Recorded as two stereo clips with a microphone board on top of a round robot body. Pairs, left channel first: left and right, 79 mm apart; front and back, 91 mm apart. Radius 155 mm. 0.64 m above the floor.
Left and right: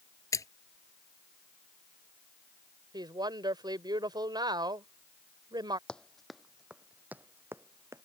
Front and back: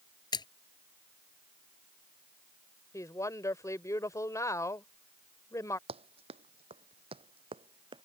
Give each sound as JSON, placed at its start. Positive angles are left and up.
{"t": 0.3, "sound": "a splash", "azimuth_deg": 40}
{"t": 2.9, "sound": "a woman speaking", "azimuth_deg": -60}
{"t": 5.9, "sound": "running footsteps", "azimuth_deg": 170}